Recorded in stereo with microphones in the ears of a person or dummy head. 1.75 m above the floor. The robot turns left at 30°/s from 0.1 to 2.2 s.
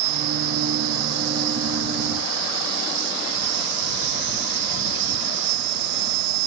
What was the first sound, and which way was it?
An insect, 40° right.